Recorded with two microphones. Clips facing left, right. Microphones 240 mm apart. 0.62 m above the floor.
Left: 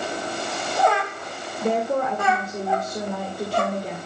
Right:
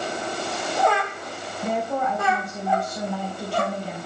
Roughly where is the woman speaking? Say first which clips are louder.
Left 4 dB; left.